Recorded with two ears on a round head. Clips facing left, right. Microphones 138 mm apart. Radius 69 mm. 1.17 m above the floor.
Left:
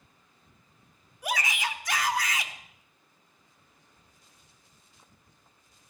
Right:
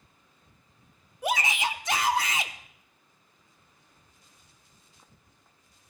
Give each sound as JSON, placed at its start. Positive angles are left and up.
{"t": 1.2, "sound": "a shout", "side_deg": -25, "distance_m": 1.0}